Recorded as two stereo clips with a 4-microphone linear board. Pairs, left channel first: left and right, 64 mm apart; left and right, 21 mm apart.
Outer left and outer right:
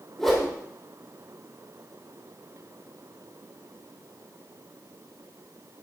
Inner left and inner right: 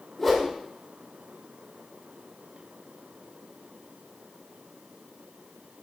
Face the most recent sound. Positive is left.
turn(degrees=5)  # may be behind; listen again after turning